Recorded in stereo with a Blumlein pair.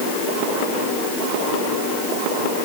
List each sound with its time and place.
Only background noise.